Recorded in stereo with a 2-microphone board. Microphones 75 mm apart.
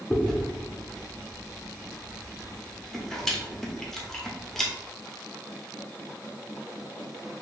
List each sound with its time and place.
0.1 s chewing: 5° left (ahead or behind), 0.7 m